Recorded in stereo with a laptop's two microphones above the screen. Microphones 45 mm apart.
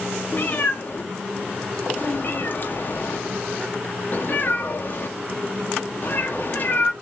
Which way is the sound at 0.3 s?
45° left (ahead or behind).